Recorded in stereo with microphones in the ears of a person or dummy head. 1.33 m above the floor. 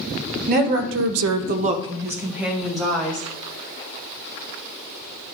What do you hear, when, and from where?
0.5 s a woman speaking: 50° right (ahead or behind), 1.2 m; by 3.3 s 5° left (ahead or behind), 2.5 m